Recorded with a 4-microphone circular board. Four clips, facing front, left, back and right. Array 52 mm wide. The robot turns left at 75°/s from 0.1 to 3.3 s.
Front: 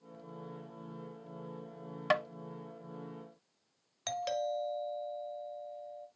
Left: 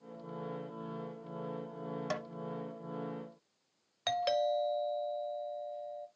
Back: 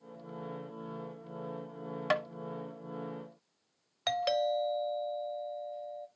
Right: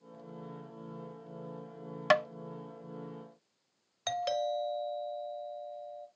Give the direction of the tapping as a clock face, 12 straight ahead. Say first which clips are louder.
Right 14 dB, even; 3 o'clock.